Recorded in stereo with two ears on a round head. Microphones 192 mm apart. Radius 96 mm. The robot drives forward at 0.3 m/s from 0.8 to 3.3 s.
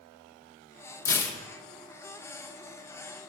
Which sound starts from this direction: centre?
Tearing paper, at 1.1 s.